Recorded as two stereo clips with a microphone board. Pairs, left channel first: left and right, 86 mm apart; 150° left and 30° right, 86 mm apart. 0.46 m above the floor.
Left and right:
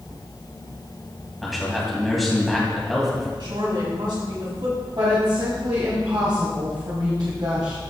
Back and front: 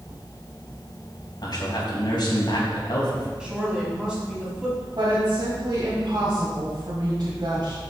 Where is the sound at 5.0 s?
65° right, 2 m.